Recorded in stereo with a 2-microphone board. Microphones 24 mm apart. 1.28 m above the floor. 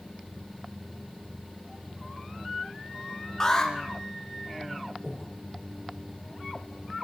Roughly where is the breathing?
Centre.